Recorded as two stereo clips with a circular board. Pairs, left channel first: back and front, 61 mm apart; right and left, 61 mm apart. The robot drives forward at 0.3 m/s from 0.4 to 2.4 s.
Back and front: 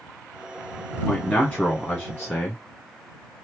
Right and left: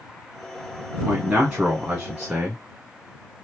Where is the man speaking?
145° left, 2.0 m; by 2.6 s 155° left, 2 m.